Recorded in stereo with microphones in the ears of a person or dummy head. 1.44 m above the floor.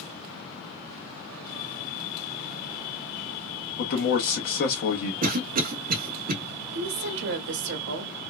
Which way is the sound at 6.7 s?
65° right (ahead or behind).